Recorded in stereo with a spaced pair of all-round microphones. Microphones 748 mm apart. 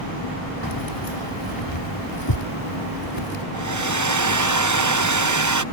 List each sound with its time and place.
0.6 s keys jangling: 35° left (ahead or behind)
3.5 s a hair dryer: 25° right (ahead or behind)